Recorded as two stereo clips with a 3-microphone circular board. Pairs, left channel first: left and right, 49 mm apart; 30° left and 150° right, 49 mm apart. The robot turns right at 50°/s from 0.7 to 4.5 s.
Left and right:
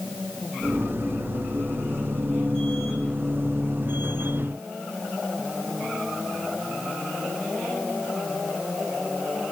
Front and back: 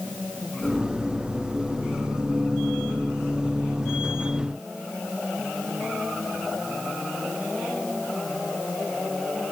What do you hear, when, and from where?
Only background noise.